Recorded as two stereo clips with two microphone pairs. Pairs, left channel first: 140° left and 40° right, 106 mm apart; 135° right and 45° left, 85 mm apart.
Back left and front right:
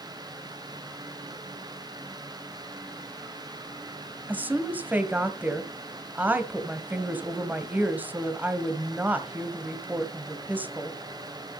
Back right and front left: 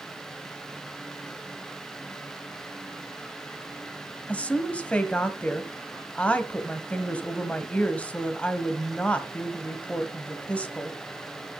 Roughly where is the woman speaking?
Right.